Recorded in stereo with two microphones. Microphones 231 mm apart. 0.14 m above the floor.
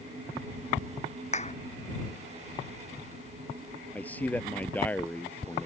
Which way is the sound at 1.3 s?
30° left (ahead or behind).